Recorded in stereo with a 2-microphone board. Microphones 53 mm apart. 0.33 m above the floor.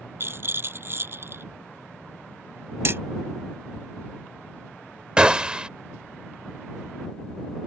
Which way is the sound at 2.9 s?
50° right (ahead or behind).